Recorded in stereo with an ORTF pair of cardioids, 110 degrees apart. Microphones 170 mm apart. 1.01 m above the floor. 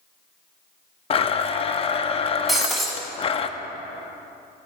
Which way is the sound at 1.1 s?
35° left.